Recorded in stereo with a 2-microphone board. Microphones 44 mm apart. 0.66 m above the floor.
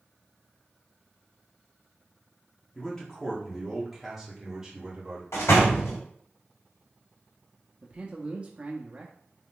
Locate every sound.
2.8 s a man speaking: 15° left (ahead or behind), 1.7 m; by 5.2 s 20° right (ahead or behind), 2 m
5.3 s a door slam: 80° left, 1.5 m
7.8 s a man speaking: 30° right (ahead or behind), 0.7 m